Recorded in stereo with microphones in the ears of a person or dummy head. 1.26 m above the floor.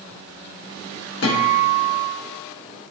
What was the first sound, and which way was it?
A guitar, 70° left (ahead or behind).